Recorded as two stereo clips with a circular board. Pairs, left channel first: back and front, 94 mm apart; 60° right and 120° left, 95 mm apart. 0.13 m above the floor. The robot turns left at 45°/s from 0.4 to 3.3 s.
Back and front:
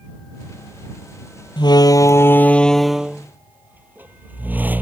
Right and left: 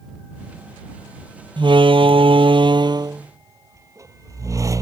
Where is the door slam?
145° left; by 4.8 s 70° left.